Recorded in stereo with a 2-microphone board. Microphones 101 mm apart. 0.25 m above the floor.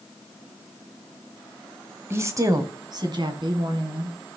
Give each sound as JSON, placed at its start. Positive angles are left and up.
{"t": 2.1, "sound": "a woman speaking", "side_deg": -25, "distance_m": 1.1}